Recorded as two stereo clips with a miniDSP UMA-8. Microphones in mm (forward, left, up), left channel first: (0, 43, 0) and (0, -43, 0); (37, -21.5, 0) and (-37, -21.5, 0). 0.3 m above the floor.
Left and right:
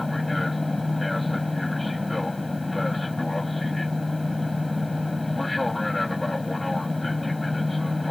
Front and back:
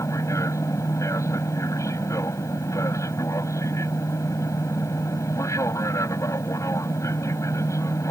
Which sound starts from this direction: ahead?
An aircraft, at 0.0 s.